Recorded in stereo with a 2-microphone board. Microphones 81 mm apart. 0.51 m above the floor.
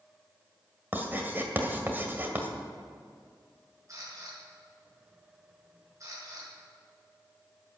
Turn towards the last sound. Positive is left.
turn(degrees=-40)  # may be behind; listen again after turning